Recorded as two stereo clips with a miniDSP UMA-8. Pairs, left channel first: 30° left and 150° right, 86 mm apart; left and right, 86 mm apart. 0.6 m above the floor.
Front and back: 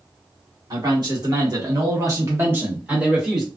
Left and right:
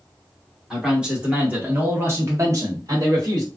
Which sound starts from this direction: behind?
A man speaking, at 0.7 s.